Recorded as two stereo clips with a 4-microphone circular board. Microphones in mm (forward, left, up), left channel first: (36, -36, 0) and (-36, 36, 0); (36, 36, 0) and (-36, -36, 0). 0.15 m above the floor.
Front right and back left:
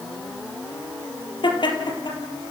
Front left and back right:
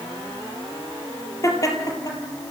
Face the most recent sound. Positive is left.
turn(degrees=0)